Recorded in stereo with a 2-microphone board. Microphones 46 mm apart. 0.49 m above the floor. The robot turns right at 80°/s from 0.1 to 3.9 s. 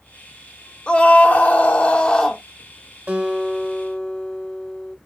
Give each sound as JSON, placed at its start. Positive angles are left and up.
{"t": 0.9, "sound": "a scream", "azimuth_deg": 40, "distance_m": 0.9}
{"t": 3.1, "sound": "a guitar", "azimuth_deg": -45, "distance_m": 1.4}